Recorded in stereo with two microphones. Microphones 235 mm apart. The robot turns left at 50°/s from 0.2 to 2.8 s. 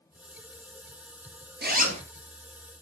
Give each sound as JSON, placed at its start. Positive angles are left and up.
{"t": 1.6, "sound": "a zipper", "side_deg": -45, "distance_m": 1.3}